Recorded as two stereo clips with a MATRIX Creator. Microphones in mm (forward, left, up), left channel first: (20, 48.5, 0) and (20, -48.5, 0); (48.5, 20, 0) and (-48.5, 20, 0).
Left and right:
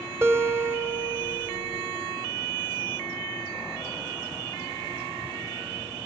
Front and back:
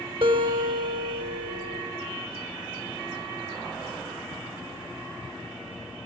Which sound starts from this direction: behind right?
A guitar, at 0.2 s.